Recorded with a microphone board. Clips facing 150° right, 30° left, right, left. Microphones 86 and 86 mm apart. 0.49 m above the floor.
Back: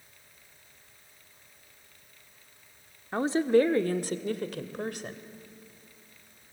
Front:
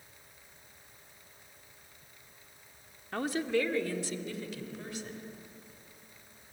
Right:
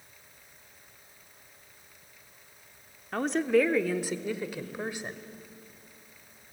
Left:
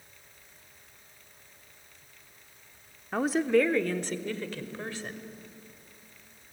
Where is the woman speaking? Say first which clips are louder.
Back 8 dB, even; 165° left, 0.8 m; by 5.2 s 160° right, 1.9 m.